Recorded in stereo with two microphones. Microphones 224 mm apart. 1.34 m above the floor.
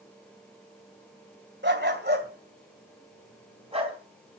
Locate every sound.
1.6 s a dog barking: 55° right (ahead or behind), 2 m; by 4.0 s 25° right (ahead or behind), 3.5 m